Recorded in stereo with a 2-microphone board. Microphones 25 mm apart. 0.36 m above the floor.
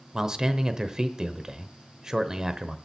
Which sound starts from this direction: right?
A man speaking, at 0.1 s.